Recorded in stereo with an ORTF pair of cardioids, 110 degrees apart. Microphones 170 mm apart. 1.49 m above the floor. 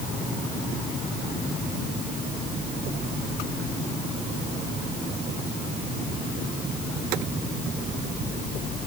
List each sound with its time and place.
Only background noise.